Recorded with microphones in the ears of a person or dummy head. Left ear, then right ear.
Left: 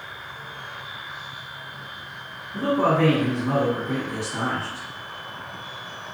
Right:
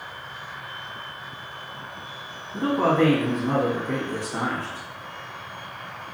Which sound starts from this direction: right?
A man speaking, at 2.5 s.